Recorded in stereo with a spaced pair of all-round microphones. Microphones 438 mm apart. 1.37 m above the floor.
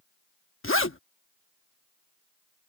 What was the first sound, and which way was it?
A zipper, 30° left (ahead or behind).